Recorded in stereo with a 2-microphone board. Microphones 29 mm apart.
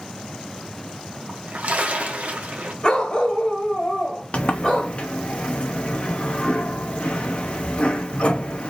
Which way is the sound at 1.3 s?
60° right (ahead or behind).